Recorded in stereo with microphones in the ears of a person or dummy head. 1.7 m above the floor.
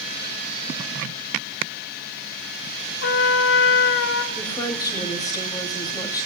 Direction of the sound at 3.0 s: 55° left (ahead or behind).